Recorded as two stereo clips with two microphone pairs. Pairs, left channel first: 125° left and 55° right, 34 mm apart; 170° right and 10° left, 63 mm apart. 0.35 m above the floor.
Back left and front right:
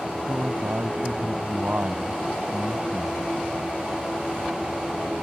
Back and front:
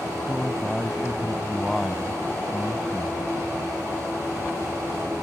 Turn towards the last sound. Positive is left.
turn(degrees=-85)